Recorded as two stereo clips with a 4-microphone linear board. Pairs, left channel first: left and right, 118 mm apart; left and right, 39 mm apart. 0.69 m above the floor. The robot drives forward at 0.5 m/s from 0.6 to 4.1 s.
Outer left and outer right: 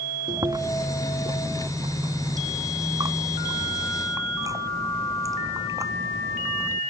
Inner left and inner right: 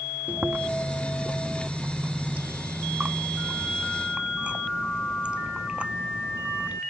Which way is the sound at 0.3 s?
35° right (ahead or behind).